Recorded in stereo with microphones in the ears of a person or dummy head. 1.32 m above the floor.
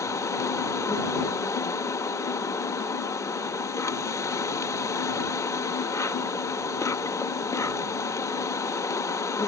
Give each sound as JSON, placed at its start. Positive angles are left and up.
{"t": 0.0, "sound": "an insect", "side_deg": 15}